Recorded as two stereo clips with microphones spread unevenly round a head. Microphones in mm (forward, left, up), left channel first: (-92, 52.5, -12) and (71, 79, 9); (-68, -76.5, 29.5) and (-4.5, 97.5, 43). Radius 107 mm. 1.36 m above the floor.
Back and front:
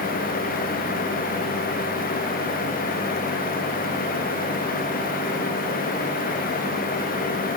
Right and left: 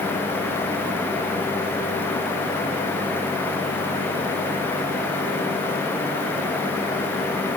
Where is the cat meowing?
No cat meowing in this recording.